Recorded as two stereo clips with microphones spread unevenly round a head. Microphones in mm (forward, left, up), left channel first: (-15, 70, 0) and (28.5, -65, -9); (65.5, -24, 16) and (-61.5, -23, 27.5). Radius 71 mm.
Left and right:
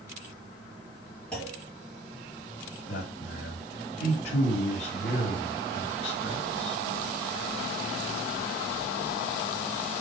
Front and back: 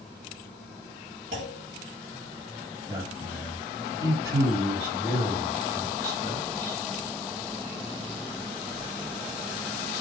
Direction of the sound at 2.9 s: 115° left.